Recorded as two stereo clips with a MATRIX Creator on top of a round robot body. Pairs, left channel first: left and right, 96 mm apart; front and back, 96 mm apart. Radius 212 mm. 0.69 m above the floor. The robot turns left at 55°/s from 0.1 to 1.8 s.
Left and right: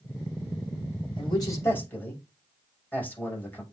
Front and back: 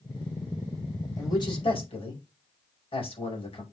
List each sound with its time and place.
1.2 s a man speaking: 55° left, 5.5 m; by 3.6 s 20° left, 5.5 m